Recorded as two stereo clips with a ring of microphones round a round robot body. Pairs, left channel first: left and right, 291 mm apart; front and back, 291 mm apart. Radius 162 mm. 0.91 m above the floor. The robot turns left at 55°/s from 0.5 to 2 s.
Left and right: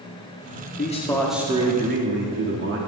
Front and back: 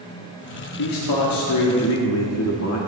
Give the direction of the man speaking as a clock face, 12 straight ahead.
11 o'clock.